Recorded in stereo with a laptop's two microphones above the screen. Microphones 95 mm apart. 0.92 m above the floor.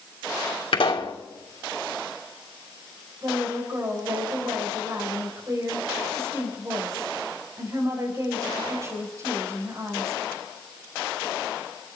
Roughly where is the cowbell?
I don't hear a cowbell.